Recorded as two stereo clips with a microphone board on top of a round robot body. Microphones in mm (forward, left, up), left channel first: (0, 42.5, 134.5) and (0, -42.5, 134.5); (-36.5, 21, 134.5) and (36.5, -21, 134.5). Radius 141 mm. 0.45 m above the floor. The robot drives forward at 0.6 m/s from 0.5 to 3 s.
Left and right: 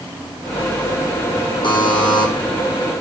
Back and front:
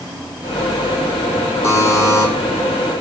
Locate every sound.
1.6 s a buzzer: 100° left, 2.5 m; by 2.3 s 105° left, 2.5 m